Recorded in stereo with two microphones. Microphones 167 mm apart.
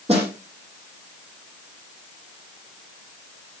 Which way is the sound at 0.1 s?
40° right (ahead or behind).